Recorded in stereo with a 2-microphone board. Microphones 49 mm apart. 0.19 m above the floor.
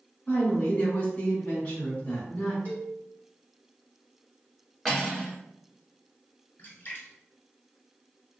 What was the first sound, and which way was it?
A woman speaking, 25° left (ahead or behind).